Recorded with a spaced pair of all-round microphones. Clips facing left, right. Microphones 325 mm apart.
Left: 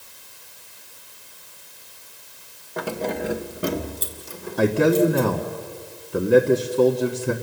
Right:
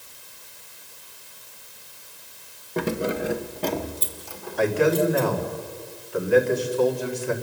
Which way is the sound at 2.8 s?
40° right (ahead or behind).